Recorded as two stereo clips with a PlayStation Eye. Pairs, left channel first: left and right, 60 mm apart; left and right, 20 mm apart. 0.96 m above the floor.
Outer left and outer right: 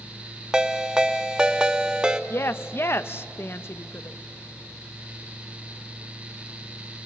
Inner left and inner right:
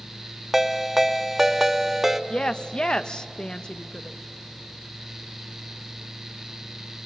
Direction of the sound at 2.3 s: 40° left (ahead or behind).